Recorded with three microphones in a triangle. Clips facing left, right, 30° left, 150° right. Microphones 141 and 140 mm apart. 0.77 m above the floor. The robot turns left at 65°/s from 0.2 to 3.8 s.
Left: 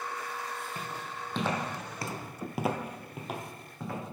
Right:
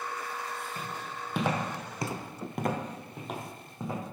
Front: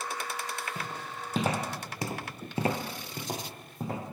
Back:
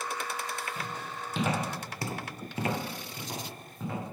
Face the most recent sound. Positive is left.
turn(degrees=-20)